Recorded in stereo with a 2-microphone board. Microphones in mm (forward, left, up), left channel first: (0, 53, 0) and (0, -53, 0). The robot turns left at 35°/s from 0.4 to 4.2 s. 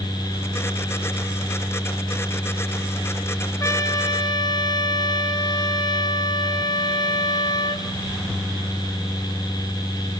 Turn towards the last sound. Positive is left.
turn(degrees=45)  # may be behind; listen again after turning